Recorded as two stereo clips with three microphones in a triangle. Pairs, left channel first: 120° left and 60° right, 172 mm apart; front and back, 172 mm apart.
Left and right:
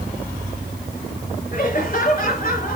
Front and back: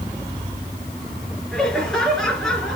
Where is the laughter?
85° left, 4.5 m.